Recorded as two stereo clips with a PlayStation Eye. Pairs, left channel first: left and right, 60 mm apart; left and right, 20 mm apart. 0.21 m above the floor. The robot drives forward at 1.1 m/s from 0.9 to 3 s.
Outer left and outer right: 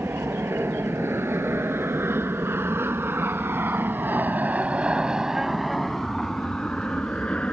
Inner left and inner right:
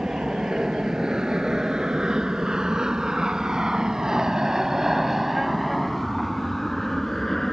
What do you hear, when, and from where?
0.0 s an aircraft: 45° right (ahead or behind); by 7.5 s 20° left (ahead or behind)